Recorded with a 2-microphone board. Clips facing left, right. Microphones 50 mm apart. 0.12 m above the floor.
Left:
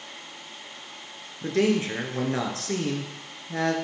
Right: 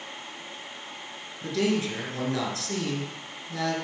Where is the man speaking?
35° left (ahead or behind), 1.8 m.